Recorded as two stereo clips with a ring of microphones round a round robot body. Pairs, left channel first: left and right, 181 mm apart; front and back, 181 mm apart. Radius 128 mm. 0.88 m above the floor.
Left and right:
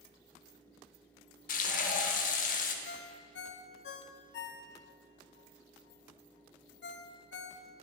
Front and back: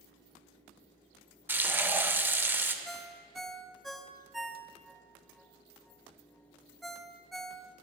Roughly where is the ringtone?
Left.